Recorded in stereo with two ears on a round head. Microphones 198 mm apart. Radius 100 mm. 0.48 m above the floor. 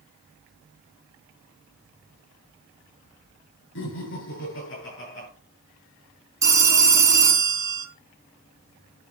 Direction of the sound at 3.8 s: 60° left (ahead or behind).